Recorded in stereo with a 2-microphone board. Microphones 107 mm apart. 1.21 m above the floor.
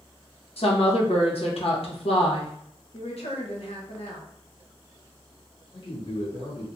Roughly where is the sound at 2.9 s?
Left.